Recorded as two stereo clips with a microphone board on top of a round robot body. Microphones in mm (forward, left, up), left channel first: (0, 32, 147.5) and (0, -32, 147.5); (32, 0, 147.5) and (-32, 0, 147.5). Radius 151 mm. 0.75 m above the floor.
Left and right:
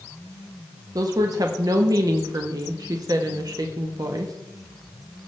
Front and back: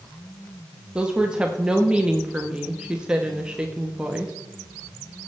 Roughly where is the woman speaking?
Right.